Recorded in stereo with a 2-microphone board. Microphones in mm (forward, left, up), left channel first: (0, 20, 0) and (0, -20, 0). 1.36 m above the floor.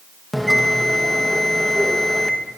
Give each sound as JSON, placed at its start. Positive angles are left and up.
{"t": 0.3, "sound": "a bell", "side_deg": 5, "distance_m": 1.2}